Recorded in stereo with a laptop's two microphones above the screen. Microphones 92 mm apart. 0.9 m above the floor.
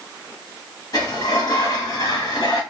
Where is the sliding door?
55° left (ahead or behind), 1.2 m.